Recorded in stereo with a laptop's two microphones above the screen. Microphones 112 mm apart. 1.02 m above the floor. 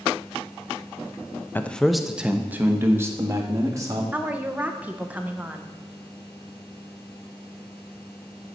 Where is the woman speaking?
15° right (ahead or behind), 0.6 m.